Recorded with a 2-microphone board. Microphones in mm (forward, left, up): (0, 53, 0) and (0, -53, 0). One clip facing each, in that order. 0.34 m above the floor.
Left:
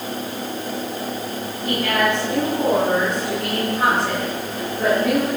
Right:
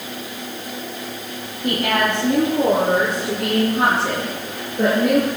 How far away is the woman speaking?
About 9 m.